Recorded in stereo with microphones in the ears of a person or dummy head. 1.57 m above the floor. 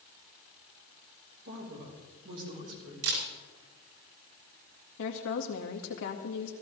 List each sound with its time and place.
1.4 s a woman speaking: 60° right (ahead or behind), 4.5 m
3.0 s a camera shutter: 80° right, 6.5 m
5.0 s a woman speaking: 70° left (ahead or behind), 2 m